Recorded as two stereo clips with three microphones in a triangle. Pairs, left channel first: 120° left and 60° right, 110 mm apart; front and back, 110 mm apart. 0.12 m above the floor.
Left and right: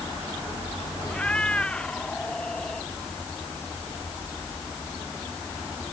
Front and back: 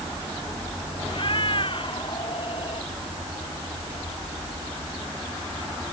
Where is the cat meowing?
40° left; by 2.9 s 35° left.